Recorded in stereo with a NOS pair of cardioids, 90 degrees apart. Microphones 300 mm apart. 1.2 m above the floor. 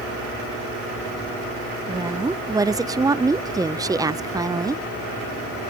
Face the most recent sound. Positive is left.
turn(degrees=-15)